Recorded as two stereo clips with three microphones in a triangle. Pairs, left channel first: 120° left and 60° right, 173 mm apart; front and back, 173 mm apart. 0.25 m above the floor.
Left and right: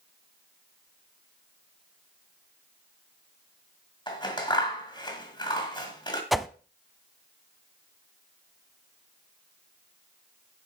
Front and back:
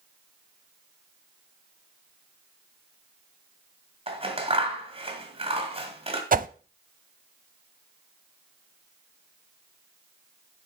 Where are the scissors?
160° left, 1.8 m.